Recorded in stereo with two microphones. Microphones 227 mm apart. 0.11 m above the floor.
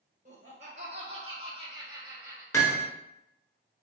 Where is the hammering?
15° left (ahead or behind), 1.1 m.